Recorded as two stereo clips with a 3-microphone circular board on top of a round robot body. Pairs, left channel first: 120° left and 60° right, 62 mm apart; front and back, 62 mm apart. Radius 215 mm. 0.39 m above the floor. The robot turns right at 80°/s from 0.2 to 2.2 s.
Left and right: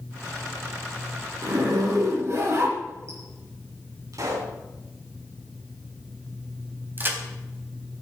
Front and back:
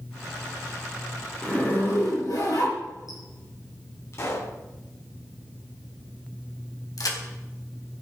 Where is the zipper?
80° right, 8 m; by 3.2 s 15° right, 8 m.